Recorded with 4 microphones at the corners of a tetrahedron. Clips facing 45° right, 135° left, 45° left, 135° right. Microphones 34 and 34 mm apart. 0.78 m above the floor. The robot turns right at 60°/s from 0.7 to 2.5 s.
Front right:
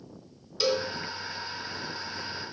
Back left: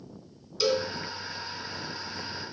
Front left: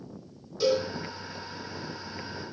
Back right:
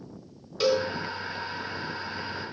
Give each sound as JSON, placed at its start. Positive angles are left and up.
{"t": 0.6, "sound": "a cowbell", "azimuth_deg": -110, "distance_m": 2.5}